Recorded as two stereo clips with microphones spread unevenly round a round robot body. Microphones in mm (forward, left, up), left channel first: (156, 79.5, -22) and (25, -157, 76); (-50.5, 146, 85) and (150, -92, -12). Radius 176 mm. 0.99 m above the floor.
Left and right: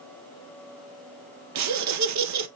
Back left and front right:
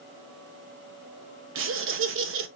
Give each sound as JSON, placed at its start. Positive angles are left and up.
{"t": 1.6, "sound": "laughter", "azimuth_deg": -85, "distance_m": 1.0}